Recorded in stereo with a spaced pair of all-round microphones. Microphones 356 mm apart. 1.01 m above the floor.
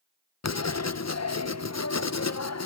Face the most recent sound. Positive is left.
turn(degrees=45)  # may be behind; listen again after turning